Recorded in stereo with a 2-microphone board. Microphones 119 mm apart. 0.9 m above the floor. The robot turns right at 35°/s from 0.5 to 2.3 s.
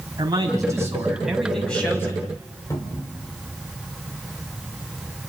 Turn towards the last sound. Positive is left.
turn(degrees=30)  # may be behind; listen again after turning